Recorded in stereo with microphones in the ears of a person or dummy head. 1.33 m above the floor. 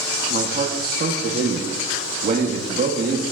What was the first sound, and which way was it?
A man speaking, 50° right (ahead or behind).